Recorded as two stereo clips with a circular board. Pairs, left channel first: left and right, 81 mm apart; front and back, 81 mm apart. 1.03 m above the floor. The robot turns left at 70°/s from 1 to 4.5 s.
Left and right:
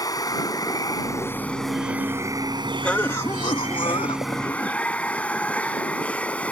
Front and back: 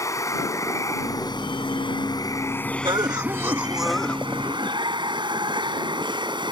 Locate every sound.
0.0 s running water: 50° left; by 6.5 s 165° left
2.8 s a cough: 165° left; by 4.8 s 50° left